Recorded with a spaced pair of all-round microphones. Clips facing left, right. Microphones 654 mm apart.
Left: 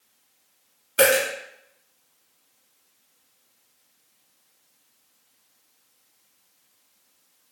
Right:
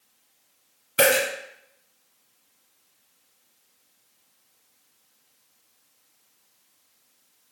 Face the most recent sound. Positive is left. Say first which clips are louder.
# left 2 dB
turn(degrees=-30)  # may be behind; listen again after turning